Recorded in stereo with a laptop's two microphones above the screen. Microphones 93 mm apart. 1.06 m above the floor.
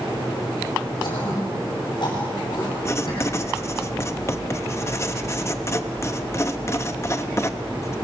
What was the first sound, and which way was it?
Throat clearing, 55° left (ahead or behind).